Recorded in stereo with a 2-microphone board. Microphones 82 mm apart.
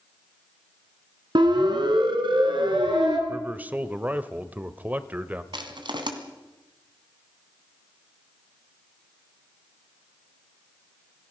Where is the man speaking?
20° right (ahead or behind), 1.1 m.